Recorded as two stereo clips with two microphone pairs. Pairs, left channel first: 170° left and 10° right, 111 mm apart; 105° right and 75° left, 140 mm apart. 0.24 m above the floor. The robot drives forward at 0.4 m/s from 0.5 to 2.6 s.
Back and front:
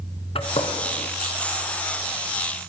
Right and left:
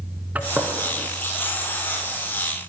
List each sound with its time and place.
0.3 s a gunshot: 155° left, 1.6 m